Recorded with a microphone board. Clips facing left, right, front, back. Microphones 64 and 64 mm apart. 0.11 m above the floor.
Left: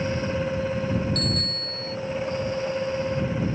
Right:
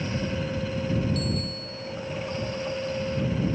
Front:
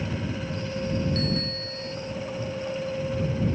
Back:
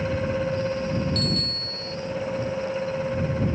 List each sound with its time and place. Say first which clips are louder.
1.1 s a bicycle bell: left 1 dB, even; 65° left